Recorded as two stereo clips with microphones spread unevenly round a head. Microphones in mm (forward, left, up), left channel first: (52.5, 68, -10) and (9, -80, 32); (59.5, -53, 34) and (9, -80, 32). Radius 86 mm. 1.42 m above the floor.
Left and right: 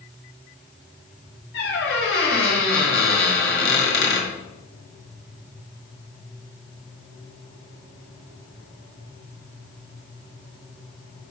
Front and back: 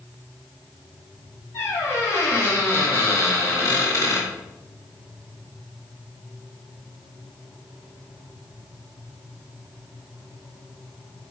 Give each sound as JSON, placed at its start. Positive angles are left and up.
{"t": 1.5, "sound": "a squeak", "azimuth_deg": 60, "distance_m": 1.7}